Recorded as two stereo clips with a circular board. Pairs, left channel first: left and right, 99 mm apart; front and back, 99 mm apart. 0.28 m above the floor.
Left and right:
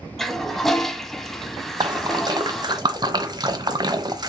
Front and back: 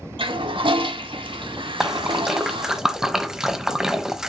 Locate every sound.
0.2 s a toilet flushing: 175° left, 0.9 m
1.8 s a splash: 100° right, 0.9 m